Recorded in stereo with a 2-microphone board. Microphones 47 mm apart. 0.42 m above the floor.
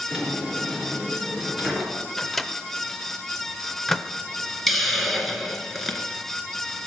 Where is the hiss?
Centre (ahead or behind), 1.5 m.